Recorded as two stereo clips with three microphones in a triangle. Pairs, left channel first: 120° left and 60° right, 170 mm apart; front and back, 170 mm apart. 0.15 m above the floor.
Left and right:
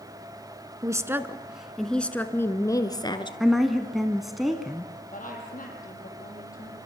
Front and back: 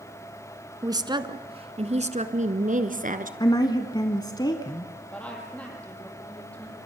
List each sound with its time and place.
0.8 s a woman speaking: 120° right, 1.3 m; by 3.3 s 175° left, 1.6 m
3.4 s a woman speaking: 30° left, 1.2 m
5.1 s a woman speaking: 80° left, 5.5 m